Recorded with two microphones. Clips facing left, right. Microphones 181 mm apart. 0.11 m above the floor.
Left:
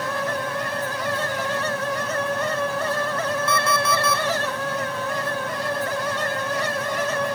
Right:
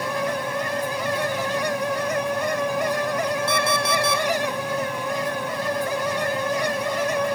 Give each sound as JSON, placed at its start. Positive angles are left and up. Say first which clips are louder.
{"t": 3.5, "sound": "an alarm clock", "louder": "even", "side_deg": -30, "distance_m": 2.5}